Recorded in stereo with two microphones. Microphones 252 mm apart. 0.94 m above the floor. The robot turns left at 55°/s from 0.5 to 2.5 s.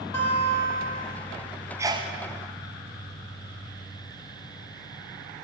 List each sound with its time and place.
0.1 s a guitar: 10° left (ahead or behind), 1.6 m; by 1.0 s 35° left (ahead or behind), 1.6 m
1.8 s a sneeze: 10° right (ahead or behind), 0.7 m; by 2.1 s 25° right (ahead or behind), 0.7 m